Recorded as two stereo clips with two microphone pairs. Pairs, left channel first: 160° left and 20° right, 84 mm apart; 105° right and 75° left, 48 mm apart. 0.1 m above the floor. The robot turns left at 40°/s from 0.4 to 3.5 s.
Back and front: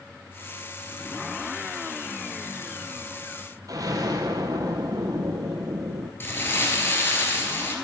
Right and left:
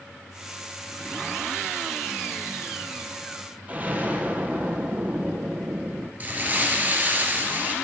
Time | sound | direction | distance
3.7 | an explosion | 20° left | 1.6 m
6.2 | crumpling | 110° left | 1.8 m